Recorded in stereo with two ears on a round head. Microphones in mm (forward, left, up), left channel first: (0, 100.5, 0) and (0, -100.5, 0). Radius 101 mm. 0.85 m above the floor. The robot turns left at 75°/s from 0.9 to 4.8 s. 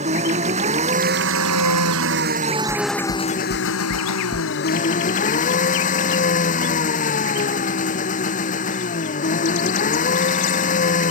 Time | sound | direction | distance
0.0 | an engine running | 30° right | ?
2.7 | knocking | 45° left (ahead or behind) | ?